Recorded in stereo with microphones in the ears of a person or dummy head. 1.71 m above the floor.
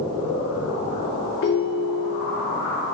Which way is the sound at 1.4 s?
40° left (ahead or behind).